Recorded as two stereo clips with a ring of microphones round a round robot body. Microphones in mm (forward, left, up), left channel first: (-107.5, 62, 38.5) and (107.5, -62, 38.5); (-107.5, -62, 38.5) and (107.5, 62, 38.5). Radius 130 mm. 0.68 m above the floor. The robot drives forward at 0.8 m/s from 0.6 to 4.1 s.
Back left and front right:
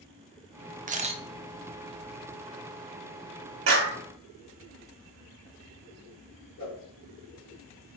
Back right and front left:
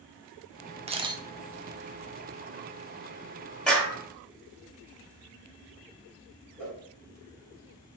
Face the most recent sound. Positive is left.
turn(degrees=125)